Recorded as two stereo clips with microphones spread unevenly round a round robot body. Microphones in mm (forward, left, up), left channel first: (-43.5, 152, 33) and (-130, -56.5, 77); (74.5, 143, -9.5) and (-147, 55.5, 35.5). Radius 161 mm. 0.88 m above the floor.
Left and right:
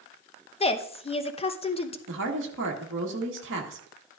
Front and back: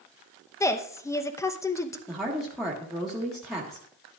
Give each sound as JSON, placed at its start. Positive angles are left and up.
{"t": 0.6, "sound": "a woman speaking", "azimuth_deg": 70, "distance_m": 0.8}
{"t": 2.1, "sound": "a woman speaking", "azimuth_deg": -65, "distance_m": 1.4}